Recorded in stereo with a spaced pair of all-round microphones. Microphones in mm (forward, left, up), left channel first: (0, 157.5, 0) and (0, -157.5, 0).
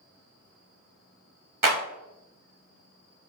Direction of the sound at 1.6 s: 75° right (ahead or behind).